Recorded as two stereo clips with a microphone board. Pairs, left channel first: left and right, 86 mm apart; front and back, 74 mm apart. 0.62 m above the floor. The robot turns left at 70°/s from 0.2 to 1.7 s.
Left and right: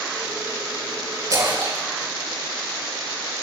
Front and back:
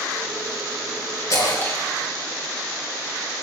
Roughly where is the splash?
Ahead right.